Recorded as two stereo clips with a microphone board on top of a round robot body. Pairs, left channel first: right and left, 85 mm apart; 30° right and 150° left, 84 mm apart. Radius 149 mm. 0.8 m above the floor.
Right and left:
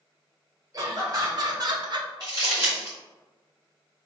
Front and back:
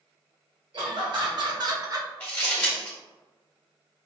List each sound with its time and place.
0.7 s laughter: 140° left, 1.7 m; by 2.1 s 105° left, 0.9 m
2.2 s crumpling: 40° left, 0.8 m